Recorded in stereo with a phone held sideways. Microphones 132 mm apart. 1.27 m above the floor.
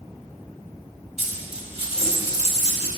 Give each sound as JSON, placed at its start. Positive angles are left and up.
{"t": 1.2, "sound": "a dropped coin", "side_deg": -45, "distance_m": 2.0}